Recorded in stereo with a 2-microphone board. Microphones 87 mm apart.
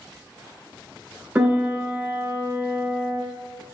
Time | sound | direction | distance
1.4 | a piano | 20° right (ahead or behind) | 0.7 m